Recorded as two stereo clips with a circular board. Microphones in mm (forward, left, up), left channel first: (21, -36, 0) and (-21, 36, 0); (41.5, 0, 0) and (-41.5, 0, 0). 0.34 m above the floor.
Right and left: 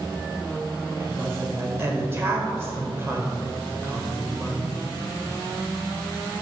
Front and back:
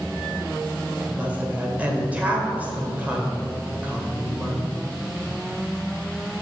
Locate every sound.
1.0 s a woman speaking: 130° left, 1.2 m